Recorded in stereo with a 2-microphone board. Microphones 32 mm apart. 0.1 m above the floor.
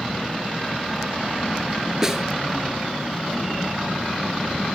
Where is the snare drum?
15° right (ahead or behind), 0.5 m.